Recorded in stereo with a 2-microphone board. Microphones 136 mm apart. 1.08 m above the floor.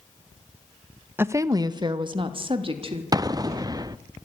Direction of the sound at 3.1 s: 30° right (ahead or behind).